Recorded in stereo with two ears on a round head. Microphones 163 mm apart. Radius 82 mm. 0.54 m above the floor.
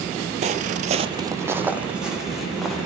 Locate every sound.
0.4 s footsteps: 40° right (ahead or behind), 0.8 m; by 2.9 s centre (ahead or behind), 3 m